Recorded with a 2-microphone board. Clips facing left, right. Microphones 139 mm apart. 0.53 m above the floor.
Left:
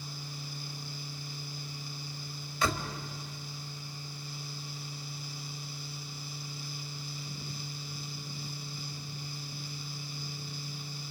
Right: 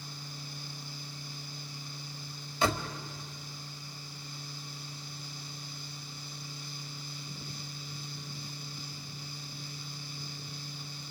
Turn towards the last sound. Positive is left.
turn(degrees=-25)  # may be behind; listen again after turning